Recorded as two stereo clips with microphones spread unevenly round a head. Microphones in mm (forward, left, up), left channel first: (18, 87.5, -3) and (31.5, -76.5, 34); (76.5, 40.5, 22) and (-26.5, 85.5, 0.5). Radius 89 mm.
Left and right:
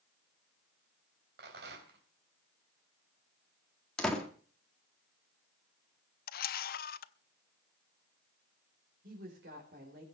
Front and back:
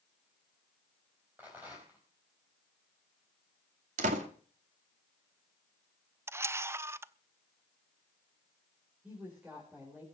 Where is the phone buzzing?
I don't hear a phone buzzing.